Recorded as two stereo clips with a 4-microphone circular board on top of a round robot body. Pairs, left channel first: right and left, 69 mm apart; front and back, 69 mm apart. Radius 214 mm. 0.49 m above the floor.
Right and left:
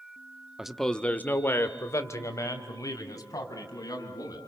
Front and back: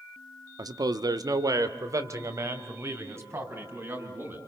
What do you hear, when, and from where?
0.6 s a man speaking: 170° left, 1.2 m; by 4.4 s 125° right, 6 m